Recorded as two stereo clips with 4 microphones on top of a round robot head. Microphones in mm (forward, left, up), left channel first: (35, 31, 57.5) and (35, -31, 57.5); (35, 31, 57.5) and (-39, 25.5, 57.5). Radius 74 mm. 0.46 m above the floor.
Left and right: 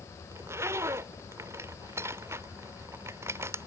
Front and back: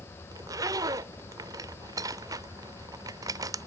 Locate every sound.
0.3 s a zipper: 135° right